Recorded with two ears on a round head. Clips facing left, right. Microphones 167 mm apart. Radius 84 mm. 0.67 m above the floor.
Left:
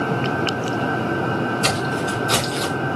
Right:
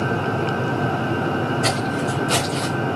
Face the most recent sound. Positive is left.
turn(degrees=45)  # may be behind; listen again after turning